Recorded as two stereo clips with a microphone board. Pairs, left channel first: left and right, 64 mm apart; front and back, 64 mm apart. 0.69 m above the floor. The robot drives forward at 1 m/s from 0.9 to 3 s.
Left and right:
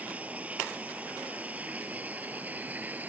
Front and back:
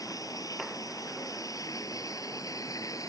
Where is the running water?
20° right; by 3.1 s 25° right.